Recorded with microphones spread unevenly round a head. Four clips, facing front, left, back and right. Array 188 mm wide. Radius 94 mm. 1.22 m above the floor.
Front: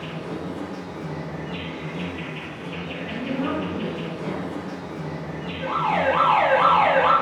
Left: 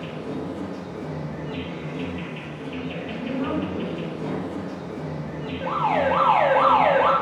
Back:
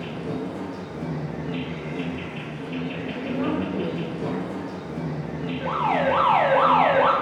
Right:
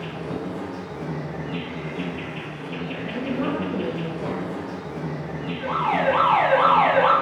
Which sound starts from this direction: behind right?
A woman speaking, at 3.0 s.